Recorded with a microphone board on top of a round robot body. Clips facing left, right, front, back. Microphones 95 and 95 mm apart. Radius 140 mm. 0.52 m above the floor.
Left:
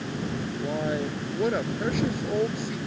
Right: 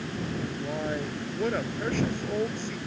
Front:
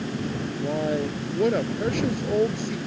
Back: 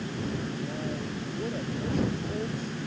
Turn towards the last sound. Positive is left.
turn(degrees=10)